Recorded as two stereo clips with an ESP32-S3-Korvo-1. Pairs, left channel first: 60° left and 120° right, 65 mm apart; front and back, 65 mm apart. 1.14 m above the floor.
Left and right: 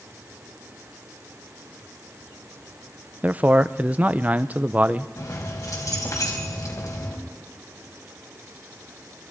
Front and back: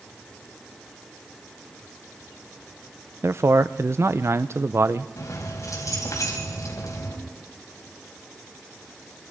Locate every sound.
3.2 s a man speaking: 175° right, 0.7 m
5.2 s keys jangling: 30° left, 4.5 m